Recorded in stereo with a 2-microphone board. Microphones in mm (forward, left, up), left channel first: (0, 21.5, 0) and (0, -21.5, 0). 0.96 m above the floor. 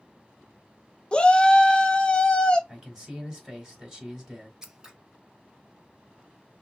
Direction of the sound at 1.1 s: 25° left (ahead or behind).